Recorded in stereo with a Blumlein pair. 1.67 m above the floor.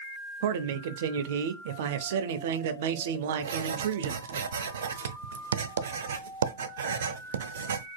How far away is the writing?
About 0.6 m.